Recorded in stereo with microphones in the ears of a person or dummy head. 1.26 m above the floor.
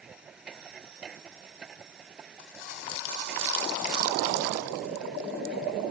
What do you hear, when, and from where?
0.0 s a machine running: 5° right (ahead or behind)